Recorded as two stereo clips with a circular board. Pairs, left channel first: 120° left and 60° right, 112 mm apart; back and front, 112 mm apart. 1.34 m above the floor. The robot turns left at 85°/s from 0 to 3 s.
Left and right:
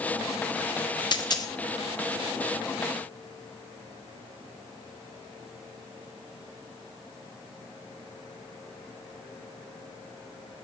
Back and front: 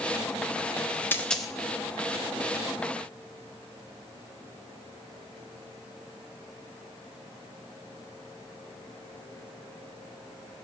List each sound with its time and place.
1.1 s a dropped coin: 120° left, 0.7 m; by 1.5 s 85° left, 0.7 m